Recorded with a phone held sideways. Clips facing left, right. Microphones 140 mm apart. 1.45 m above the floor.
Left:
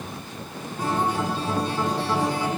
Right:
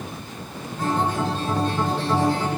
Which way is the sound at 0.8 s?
10° left (ahead or behind).